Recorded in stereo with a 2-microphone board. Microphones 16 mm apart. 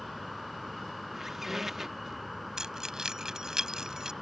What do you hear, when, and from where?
0.0 s an insect: 5° right (ahead or behind)
1.1 s a squeak: 20° right (ahead or behind)
2.6 s keys jangling: 40° right (ahead or behind)